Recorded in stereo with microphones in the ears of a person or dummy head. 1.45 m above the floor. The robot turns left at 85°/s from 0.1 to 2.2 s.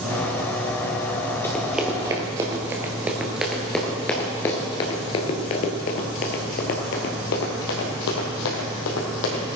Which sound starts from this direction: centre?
Running footsteps, at 1.4 s.